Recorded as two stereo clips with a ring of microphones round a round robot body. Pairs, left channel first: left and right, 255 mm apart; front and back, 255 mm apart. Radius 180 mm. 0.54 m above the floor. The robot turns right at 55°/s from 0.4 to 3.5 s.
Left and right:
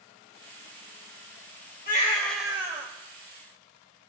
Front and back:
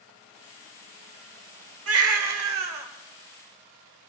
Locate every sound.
1.9 s a baby crying: 155° left, 1.2 m; by 2.9 s 150° right, 1.2 m